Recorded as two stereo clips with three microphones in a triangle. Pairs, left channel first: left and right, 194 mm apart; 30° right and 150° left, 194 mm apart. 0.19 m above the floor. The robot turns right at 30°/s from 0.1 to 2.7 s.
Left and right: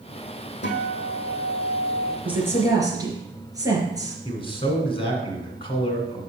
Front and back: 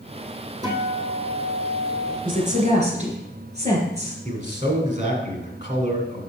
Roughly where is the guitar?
Left.